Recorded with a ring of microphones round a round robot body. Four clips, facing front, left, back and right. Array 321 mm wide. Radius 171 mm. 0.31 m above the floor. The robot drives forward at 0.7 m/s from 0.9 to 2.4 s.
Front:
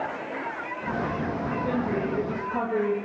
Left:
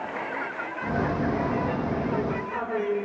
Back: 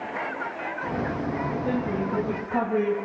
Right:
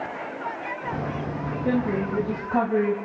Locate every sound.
1.6 s a woman speaking: 95° right, 2 m; by 2.9 s 110° right, 2.5 m